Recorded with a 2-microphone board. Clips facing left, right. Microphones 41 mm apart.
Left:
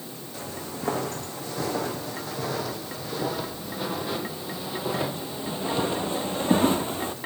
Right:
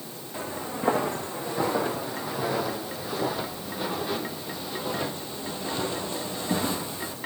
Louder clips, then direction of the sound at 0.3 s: Right 4 dB; 25° right (ahead or behind).